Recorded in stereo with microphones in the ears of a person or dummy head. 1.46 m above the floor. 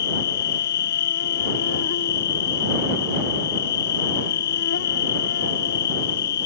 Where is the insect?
55° left (ahead or behind).